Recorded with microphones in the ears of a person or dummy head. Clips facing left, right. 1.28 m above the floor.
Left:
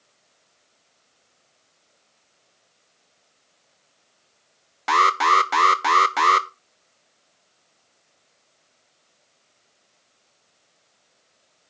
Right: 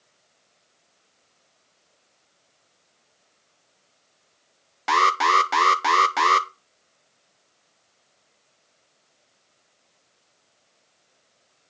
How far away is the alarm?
About 0.5 m.